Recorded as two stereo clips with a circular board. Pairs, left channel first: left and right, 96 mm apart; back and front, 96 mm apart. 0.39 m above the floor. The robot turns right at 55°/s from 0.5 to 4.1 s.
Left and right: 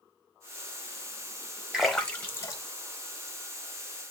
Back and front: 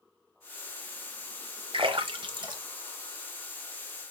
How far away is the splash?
About 0.8 m.